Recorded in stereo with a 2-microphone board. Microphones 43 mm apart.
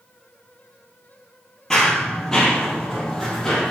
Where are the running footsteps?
15° left (ahead or behind), 2.5 m.